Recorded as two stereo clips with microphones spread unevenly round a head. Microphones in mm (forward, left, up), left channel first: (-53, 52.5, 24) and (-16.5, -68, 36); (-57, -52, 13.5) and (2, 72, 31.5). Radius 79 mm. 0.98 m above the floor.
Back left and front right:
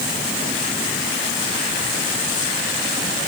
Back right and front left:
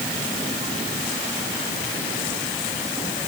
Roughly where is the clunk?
No clunk in this recording.